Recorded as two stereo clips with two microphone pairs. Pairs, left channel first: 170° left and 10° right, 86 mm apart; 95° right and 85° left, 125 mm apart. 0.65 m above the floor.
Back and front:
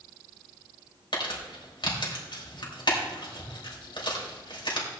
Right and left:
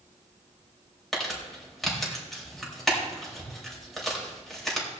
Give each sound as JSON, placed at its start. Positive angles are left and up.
{"t": 1.1, "sound": "crumpling", "azimuth_deg": 180, "distance_m": 3.5}